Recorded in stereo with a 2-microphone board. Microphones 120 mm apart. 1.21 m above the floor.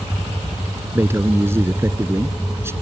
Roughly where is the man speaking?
Centre.